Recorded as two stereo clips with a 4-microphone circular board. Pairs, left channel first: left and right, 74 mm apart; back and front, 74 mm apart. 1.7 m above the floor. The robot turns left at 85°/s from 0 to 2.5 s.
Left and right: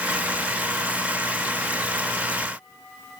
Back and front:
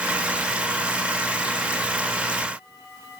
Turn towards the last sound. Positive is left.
No sound to turn to.